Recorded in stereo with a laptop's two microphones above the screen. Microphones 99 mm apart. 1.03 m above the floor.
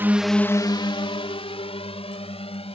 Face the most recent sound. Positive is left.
turn(degrees=75)  # may be behind; listen again after turning